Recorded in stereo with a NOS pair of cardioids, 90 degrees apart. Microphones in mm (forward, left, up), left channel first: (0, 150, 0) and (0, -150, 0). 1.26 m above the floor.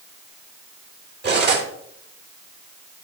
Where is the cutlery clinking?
35° right, 2.5 m.